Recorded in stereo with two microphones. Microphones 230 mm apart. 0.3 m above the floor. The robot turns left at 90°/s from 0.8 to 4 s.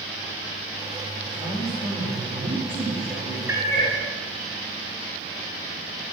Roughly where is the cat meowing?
Ahead.